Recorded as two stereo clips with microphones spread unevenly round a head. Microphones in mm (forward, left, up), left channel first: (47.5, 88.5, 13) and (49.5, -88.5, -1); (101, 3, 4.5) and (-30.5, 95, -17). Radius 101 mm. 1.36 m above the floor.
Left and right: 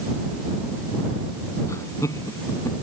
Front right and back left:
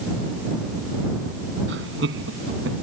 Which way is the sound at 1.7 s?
165° left.